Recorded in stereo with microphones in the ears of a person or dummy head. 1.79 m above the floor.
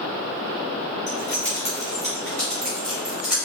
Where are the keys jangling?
40° left (ahead or behind), 1.2 m; by 3.4 s 5° right (ahead or behind), 1.6 m.